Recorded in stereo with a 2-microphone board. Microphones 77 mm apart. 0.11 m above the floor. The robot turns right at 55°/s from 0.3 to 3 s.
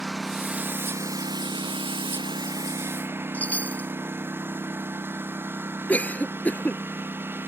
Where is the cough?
20° left (ahead or behind).